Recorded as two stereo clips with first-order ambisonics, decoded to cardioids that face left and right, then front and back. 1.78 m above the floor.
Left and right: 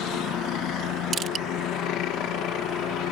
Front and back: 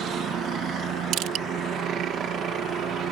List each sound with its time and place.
0.0 s a helicopter: 130° left
1.1 s crushing: 150° right